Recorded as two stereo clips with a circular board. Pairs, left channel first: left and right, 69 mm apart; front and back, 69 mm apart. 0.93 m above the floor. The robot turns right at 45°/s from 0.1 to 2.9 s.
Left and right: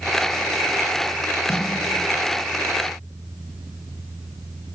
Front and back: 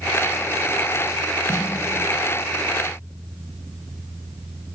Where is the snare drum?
125° left, 1.3 m; by 1.7 s 130° left, 1.3 m.